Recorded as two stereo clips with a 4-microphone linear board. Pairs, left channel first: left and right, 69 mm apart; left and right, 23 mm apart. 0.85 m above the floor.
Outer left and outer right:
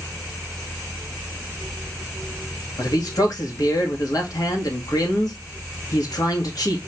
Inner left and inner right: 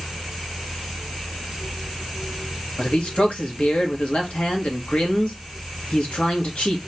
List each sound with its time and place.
2.8 s a man speaking: 60° left (ahead or behind), 1.6 m